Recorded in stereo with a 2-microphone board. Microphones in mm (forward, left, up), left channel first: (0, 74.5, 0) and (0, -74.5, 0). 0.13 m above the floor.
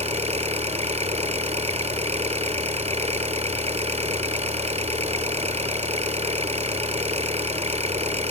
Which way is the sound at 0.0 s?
45° right (ahead or behind).